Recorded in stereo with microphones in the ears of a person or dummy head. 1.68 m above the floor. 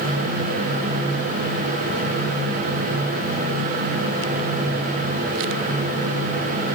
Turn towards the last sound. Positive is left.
No sound to turn to.